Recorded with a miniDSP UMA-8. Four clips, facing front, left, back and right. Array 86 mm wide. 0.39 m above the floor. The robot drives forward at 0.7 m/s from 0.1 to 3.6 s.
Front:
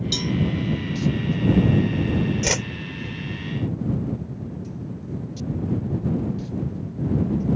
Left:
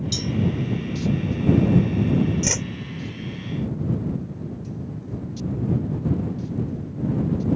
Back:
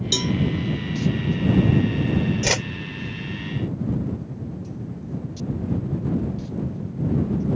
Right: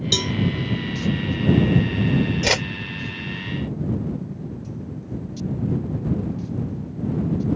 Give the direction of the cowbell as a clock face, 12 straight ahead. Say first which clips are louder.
Right 3 dB, back 4 dB; 4 o'clock.